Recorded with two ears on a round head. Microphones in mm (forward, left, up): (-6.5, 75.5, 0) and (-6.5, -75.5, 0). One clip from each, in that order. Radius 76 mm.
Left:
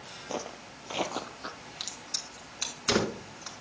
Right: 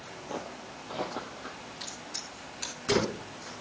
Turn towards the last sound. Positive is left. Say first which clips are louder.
# left 4 dB
turn(degrees=75)  # may be behind; listen again after turning